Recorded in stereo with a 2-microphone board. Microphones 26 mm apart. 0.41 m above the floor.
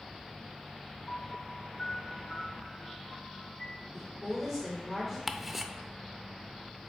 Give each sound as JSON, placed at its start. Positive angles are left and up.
{"t": 1.1, "sound": "a piano", "side_deg": 30, "distance_m": 3.0}
{"t": 3.9, "sound": "a woman speaking", "side_deg": 0, "distance_m": 1.5}
{"t": 5.3, "sound": "ticking", "side_deg": -15, "distance_m": 0.5}